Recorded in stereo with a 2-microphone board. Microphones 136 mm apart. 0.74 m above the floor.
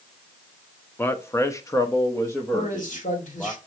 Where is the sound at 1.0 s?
15° left (ahead or behind), 0.8 m.